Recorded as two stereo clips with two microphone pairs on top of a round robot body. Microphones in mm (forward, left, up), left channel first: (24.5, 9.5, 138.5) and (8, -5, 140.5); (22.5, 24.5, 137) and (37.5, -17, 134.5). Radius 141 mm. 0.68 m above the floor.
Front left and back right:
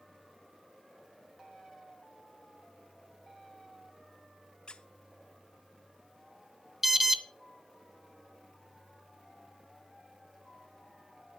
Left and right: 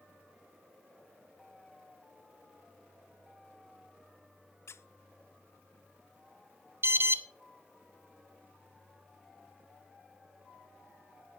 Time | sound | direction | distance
4.7 | a squeak | 90° left | 0.6 m
6.8 | an alarm | 60° right | 1.3 m